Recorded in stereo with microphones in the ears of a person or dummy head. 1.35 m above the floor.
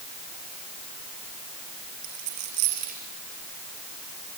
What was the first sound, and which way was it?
A dropped coin, 50° right (ahead or behind).